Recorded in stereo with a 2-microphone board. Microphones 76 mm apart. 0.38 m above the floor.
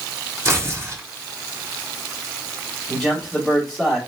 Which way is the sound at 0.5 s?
35° right (ahead or behind).